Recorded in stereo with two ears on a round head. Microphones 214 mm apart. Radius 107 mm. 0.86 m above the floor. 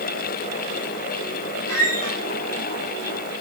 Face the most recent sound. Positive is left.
turn(degrees=65)  # may be behind; listen again after turning